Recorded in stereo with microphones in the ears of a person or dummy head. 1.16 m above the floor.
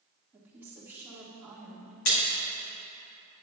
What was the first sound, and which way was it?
A woman speaking, 10° right (ahead or behind).